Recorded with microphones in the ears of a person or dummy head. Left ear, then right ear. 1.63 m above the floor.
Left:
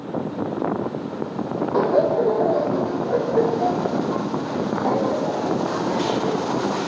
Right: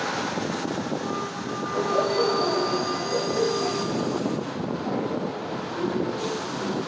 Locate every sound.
1.7 s laughter: 70° left (ahead or behind), 1.4 m